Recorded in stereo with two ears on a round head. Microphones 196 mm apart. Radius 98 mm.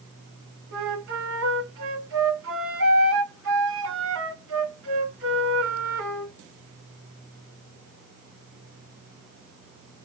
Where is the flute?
60° right (ahead or behind), 1.6 m.